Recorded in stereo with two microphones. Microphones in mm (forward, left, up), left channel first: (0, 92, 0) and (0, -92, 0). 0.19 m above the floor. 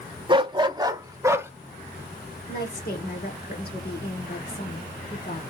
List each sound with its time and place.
0.3 s a dog barking: 25° right (ahead or behind), 0.6 m; by 1.5 s 15° right (ahead or behind), 0.8 m
2.5 s a woman speaking: 60° left (ahead or behind), 2 m